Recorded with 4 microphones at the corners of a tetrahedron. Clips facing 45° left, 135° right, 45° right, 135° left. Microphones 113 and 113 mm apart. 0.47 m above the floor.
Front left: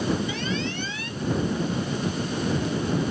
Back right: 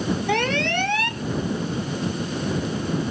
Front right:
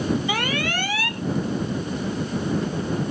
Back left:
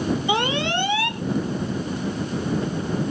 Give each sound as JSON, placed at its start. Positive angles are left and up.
{"t": 0.3, "sound": "an alarm", "azimuth_deg": -160}